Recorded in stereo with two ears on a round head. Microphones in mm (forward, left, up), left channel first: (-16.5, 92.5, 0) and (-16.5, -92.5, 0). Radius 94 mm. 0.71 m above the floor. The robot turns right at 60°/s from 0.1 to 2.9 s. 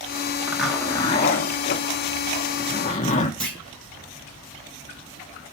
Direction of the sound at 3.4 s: 5° left (ahead or behind).